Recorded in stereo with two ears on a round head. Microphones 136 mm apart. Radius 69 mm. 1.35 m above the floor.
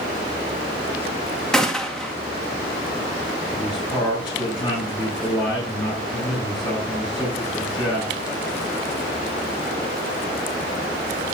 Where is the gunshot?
5° left (ahead or behind), 1.8 m.